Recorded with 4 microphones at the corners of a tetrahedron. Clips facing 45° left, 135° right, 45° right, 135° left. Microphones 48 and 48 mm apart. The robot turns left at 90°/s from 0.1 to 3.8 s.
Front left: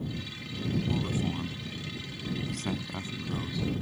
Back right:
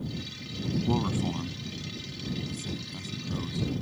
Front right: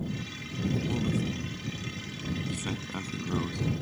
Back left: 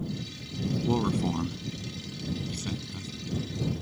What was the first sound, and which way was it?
A man speaking, 175° right.